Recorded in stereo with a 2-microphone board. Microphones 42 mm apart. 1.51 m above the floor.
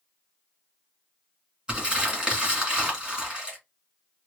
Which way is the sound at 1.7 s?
20° right (ahead or behind).